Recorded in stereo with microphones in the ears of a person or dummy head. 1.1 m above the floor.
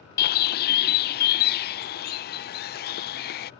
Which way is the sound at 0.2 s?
40° left (ahead or behind).